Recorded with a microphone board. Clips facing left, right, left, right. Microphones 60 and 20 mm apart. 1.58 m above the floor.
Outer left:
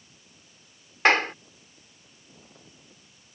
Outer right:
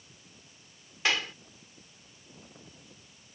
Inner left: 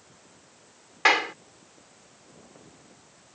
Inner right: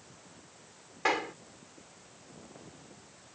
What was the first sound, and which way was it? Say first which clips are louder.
A clap: outer left 9 dB, inner left 9 dB; 50° left (ahead or behind).